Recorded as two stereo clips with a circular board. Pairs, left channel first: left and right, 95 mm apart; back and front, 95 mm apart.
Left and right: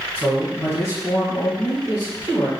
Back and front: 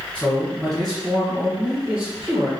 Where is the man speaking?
140° left, 1.3 m; by 2.5 s 70° left, 2 m.